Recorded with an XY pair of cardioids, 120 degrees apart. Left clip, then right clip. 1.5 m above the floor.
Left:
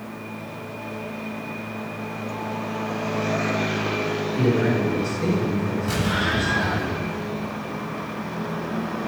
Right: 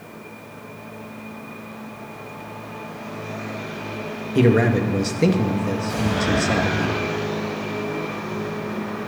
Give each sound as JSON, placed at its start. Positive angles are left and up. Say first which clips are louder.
{"t": 4.3, "sound": "a man speaking", "louder": "right 6 dB", "azimuth_deg": -65, "distance_m": 2.0}
{"t": 5.9, "sound": "an explosion", "louder": "even", "azimuth_deg": 55, "distance_m": 7.0}